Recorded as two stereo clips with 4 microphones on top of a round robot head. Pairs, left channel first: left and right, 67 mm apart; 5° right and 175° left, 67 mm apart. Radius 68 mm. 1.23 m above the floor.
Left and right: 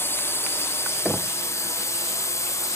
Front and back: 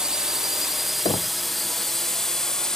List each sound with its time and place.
0.0 s a drone: 100° left; by 2.8 s 75° left
1.1 s knocking: straight ahead